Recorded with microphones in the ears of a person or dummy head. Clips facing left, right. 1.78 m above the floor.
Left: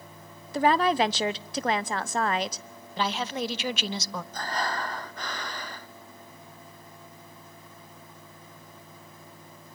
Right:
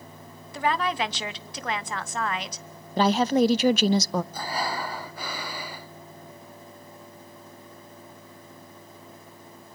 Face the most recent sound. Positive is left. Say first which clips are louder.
# right 1 dB
turn(degrees=-5)  # may be behind; listen again after turning